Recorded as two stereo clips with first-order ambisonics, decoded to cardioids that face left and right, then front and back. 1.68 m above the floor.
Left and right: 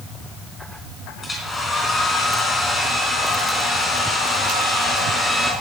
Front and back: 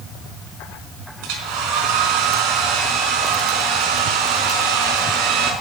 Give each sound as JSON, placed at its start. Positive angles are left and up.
{"t": 1.2, "sound": "a hair dryer", "azimuth_deg": 165, "distance_m": 3.5}